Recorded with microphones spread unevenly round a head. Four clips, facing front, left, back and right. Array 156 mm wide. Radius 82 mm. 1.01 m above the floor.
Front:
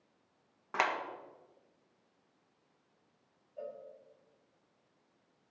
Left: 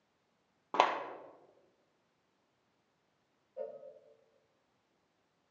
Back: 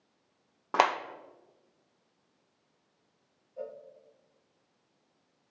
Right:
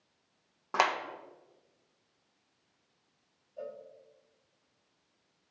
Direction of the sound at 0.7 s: 170° left.